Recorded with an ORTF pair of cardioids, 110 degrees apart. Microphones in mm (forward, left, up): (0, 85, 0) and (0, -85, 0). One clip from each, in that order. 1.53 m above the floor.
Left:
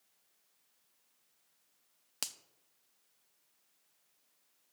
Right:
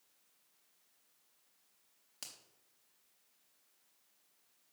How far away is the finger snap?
About 0.7 m.